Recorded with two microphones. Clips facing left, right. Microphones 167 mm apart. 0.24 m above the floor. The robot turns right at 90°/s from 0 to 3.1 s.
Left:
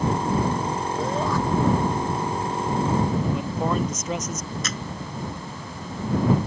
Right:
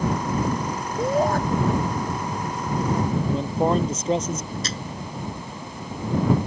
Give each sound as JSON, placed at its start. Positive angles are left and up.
{"t": 1.0, "sound": "a shout", "azimuth_deg": -160}
{"t": 3.3, "sound": "a man speaking", "side_deg": -30}
{"t": 4.6, "sound": "a camera shutter", "side_deg": -30}